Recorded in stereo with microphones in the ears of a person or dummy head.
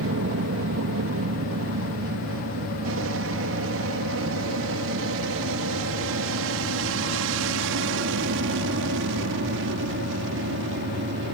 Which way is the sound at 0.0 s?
65° right (ahead or behind).